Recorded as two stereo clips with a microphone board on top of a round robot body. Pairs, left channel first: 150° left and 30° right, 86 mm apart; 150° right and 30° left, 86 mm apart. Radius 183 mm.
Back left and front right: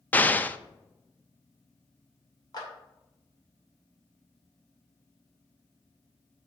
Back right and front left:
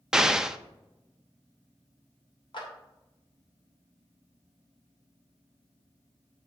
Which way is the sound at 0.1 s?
105° left.